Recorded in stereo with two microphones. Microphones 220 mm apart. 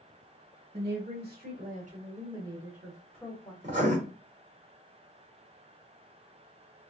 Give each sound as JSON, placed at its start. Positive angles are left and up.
{"t": 0.7, "sound": "a woman speaking", "side_deg": -50, "distance_m": 1.7}
{"t": 3.6, "sound": "writing", "side_deg": -35, "distance_m": 1.2}